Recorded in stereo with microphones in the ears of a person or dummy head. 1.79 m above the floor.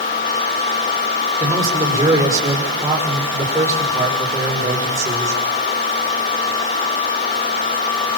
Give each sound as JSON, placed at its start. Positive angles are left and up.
{"t": 1.4, "sound": "a man speaking", "side_deg": -20, "distance_m": 6.5}